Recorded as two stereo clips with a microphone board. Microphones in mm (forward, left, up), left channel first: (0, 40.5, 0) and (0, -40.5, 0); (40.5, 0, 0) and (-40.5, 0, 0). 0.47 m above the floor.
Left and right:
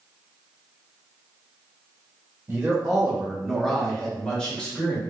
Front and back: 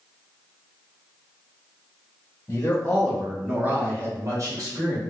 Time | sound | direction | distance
2.5 | a man speaking | 25° right | 0.9 m